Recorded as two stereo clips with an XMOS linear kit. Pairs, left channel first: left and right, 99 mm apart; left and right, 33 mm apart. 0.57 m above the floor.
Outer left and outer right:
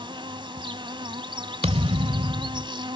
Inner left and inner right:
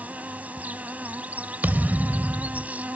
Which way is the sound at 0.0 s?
55° right (ahead or behind).